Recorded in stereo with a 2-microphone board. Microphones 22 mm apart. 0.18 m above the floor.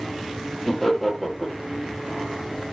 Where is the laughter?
10° left (ahead or behind), 5 m.